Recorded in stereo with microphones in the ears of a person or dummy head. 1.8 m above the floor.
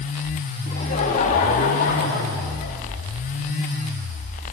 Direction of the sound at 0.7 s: 40° left (ahead or behind).